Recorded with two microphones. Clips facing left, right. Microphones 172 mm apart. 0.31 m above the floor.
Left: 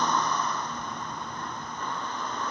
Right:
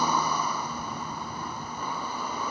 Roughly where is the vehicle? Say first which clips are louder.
Even; centre.